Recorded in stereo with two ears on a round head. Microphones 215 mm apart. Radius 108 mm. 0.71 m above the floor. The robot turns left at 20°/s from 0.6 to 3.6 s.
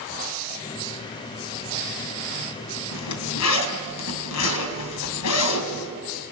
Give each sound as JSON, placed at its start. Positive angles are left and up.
{"t": 2.9, "sound": "a zipper", "side_deg": 90, "distance_m": 2.5}